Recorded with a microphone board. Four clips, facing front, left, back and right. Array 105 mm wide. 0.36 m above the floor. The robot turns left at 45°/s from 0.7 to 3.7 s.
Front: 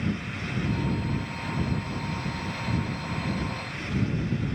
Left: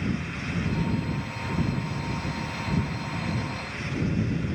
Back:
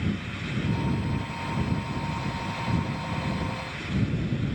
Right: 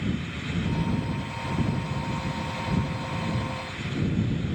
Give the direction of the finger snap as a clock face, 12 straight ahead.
I don't hear a finger snap.